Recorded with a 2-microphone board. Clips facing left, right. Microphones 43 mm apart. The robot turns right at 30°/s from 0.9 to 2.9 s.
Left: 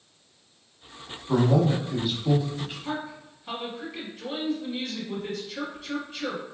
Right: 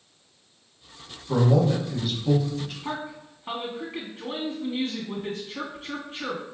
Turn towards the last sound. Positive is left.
turn(degrees=-40)  # may be behind; listen again after turning